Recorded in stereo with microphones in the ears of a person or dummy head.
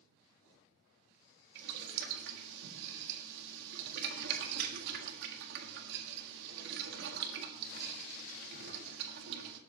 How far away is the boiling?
About 1.7 m.